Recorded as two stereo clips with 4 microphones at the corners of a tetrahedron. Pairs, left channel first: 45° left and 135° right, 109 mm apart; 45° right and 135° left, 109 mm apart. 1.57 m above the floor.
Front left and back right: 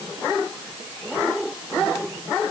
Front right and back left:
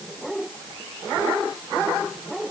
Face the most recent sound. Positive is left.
No sound to turn to.